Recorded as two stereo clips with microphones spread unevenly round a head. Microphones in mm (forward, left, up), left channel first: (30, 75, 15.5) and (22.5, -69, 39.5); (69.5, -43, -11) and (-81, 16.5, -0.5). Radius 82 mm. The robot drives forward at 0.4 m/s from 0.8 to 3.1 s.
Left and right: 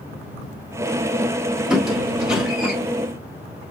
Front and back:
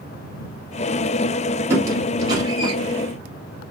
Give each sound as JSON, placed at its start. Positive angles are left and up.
{"t": 1.7, "sound": "a squeak", "azimuth_deg": -155, "distance_m": 1.4}